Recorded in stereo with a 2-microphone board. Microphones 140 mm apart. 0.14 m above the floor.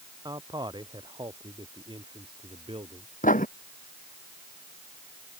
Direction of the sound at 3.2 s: 70° left (ahead or behind).